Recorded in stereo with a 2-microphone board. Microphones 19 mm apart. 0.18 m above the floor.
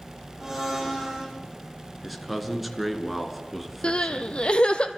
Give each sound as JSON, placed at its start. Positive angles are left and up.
{"t": 0.4, "sound": "a blender", "side_deg": -30, "distance_m": 6.5}
{"t": 2.0, "sound": "a man speaking", "side_deg": -5, "distance_m": 2.5}
{"t": 3.8, "sound": "crying", "side_deg": 70, "distance_m": 1.3}